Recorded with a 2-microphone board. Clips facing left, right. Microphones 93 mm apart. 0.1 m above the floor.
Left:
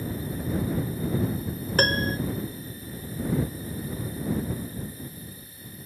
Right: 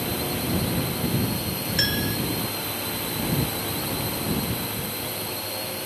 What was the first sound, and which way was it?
A drone, 85° right.